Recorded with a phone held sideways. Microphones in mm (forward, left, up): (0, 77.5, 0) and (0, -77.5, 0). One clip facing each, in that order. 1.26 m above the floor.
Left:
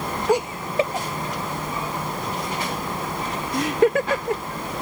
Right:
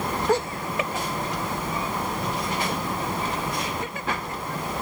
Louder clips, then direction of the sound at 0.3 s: Left 4 dB; 10° left (ahead or behind).